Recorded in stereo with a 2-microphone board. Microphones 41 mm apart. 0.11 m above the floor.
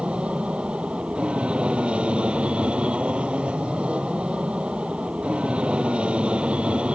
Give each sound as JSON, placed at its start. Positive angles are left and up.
{"t": 0.0, "sound": "an aircraft", "side_deg": -30}